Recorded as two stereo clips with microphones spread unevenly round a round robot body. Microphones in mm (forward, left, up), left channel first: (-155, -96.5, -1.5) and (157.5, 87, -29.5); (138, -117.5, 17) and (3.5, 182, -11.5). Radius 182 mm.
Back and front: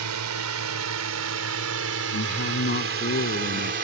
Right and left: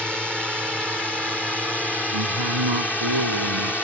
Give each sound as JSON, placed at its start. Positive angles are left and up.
{"t": 0.0, "sound": "a drone", "azimuth_deg": 25}
{"t": 2.1, "sound": "a man speaking", "azimuth_deg": 145}